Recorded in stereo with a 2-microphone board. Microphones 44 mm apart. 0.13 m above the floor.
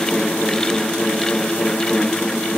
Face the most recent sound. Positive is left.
No sound to turn to.